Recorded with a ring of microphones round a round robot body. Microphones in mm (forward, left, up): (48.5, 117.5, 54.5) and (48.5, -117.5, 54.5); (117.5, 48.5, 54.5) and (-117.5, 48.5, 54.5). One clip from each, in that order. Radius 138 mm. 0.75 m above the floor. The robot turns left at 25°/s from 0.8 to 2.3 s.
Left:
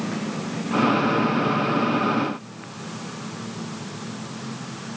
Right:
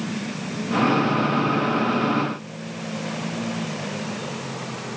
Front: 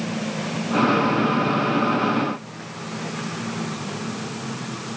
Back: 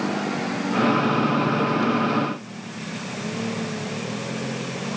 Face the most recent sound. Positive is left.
No sound to turn to.